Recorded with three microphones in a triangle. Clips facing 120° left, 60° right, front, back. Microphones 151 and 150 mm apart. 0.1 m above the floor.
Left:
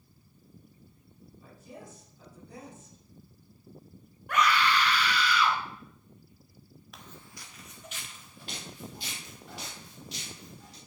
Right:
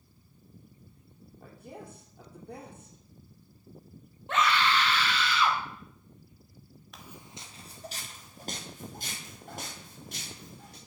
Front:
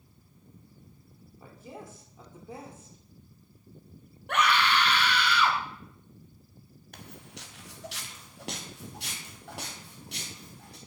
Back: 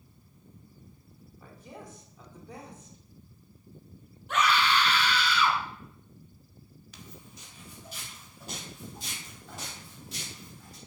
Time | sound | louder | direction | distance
1.4 | a woman speaking | right 2 dB, front 2 dB | 60° right | 3.5 m
4.3 | a scream | left 1 dB, even | 5° left | 3 m
6.9 | footsteps | right 2 dB, front 3 dB | 30° left | 1.0 m